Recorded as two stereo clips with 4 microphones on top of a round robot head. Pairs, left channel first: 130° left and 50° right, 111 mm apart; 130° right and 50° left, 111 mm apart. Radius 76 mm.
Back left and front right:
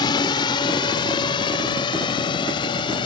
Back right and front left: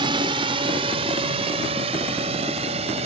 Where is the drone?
85° left; by 3.1 s 80° left.